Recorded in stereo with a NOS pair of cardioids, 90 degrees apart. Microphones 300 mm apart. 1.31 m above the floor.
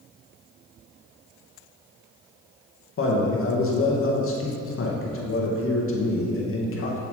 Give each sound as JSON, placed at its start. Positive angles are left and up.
{"t": 3.0, "sound": "a man speaking", "azimuth_deg": 50, "distance_m": 1.7}